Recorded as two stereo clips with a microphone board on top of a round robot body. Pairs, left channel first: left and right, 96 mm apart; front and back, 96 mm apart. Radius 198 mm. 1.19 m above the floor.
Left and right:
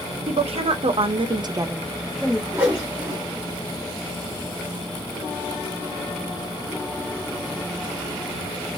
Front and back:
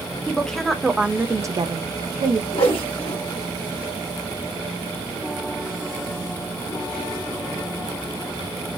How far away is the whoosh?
About 1.1 m.